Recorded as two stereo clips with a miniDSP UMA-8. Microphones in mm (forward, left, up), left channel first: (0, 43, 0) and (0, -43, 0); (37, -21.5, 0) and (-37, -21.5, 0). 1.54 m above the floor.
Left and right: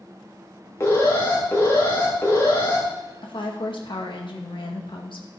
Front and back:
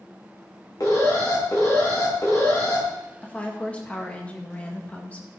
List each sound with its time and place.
0.8 s an alarm: 35° left, 3.5 m
3.2 s a woman speaking: 70° left, 2 m